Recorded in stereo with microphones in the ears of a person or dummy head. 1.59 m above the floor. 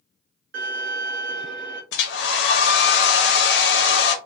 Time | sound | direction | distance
0.5 | a violin | 60° right (ahead or behind) | 1.0 m
1.9 | a hair dryer | 70° left (ahead or behind) | 0.6 m